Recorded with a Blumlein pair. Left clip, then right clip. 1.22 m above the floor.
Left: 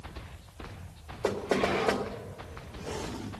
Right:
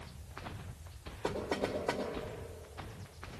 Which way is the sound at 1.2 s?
35° left.